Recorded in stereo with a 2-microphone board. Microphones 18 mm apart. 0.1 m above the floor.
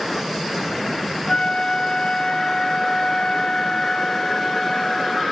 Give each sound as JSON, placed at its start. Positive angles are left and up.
{"t": 1.3, "sound": "a flute", "side_deg": 50, "distance_m": 0.8}